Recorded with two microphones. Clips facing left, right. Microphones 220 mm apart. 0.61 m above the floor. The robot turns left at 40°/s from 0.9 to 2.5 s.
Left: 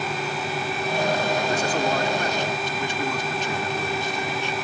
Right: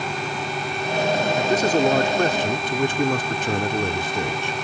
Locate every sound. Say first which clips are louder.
1.4 s a man speaking: right 5 dB; 40° right; by 4.5 s 85° right